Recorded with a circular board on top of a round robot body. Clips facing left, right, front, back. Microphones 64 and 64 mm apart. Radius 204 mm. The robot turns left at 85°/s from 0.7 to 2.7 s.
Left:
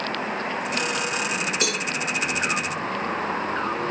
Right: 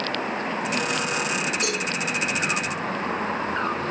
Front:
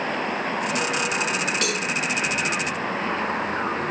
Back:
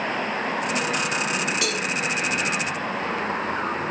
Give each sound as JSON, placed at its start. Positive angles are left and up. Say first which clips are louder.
{"t": 1.6, "sound": "a cowbell", "louder": "even, front 1 dB", "azimuth_deg": 95, "distance_m": 3.5}